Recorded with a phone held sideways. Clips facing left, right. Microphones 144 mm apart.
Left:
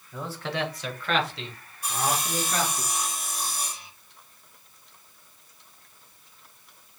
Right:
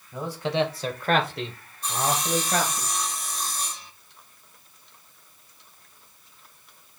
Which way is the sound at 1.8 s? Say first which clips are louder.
Right 2 dB; 10° left (ahead or behind).